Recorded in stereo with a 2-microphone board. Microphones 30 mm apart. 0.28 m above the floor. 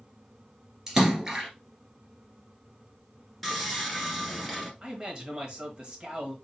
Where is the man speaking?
30° right (ahead or behind), 1.3 m.